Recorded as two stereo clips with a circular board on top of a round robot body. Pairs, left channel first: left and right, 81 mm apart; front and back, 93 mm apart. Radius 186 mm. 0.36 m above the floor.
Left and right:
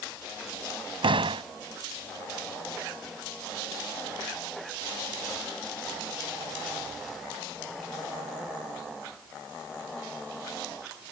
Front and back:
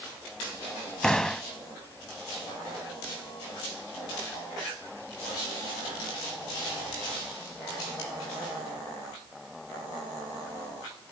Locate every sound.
1.0 s a door slam: 85° right